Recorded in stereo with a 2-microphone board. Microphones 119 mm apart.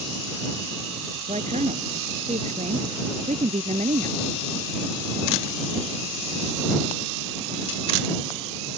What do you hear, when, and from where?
1.3 s a woman speaking: 85° right; by 4.2 s 80° right